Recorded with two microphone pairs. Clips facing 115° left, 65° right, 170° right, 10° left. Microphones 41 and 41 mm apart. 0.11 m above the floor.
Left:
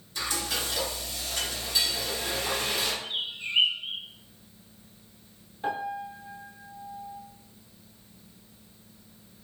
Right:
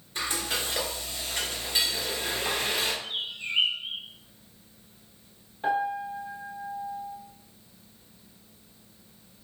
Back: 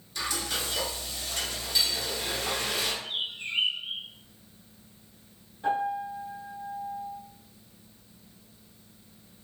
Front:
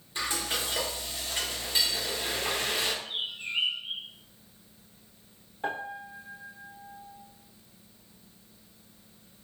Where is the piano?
10° left, 1.2 m.